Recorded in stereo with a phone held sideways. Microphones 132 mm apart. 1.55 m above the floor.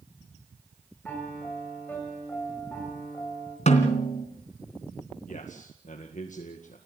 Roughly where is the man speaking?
Left.